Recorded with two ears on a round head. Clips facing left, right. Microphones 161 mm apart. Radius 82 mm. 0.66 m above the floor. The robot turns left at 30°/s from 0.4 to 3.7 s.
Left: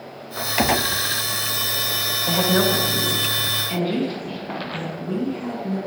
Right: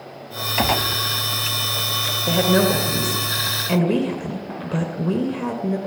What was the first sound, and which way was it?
A gunshot, 5° left (ahead or behind).